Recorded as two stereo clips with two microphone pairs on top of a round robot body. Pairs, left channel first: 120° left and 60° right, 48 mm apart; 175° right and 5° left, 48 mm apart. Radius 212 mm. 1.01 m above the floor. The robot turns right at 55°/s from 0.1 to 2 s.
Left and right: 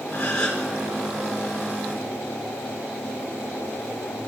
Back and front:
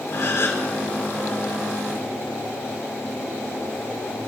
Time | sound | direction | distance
0.1 | a gasp | straight behind | 6.5 m